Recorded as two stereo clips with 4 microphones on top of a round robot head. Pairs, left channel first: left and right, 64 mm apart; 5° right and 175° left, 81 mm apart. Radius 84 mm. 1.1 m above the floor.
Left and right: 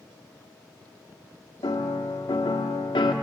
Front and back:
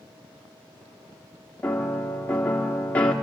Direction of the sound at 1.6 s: 70° left.